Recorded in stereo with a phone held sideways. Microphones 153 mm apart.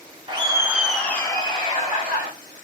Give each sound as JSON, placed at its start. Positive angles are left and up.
{"t": 0.3, "sound": "laughter", "side_deg": -30, "distance_m": 0.8}